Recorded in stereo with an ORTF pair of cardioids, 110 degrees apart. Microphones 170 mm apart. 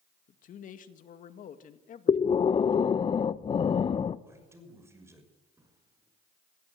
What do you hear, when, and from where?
0.3 s a man speaking: 55° left, 1.9 m
2.1 s breathing: 35° left, 0.7 m
4.3 s a man speaking: 15° right, 6 m
5.6 s a drawer: 15° right, 6 m